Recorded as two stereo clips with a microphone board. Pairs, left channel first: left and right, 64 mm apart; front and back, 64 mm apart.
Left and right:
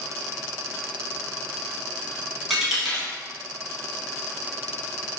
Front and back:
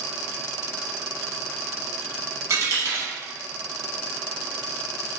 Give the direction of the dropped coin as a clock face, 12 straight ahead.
6 o'clock.